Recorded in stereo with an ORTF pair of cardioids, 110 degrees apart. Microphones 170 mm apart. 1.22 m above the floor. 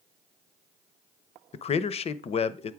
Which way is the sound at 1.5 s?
40° left.